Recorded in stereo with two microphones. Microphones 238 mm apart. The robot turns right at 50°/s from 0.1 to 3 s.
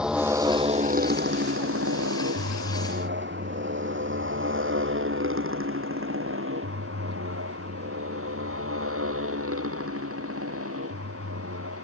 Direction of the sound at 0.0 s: 5° right (ahead or behind).